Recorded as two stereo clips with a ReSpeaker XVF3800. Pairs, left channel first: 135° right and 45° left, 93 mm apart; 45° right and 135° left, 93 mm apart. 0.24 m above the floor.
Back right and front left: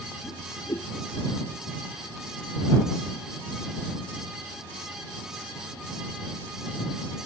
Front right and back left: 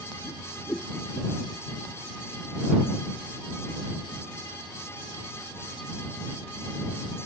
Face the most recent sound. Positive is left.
turn(degrees=-105)